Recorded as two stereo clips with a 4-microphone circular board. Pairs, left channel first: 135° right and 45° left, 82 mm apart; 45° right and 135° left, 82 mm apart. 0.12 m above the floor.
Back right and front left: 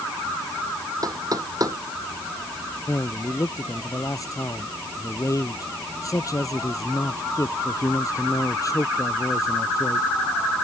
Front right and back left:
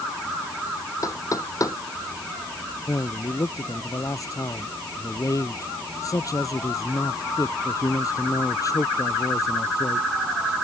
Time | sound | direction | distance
1.0 | knocking | straight ahead | ?
2.9 | a man speaking | 90° right | ?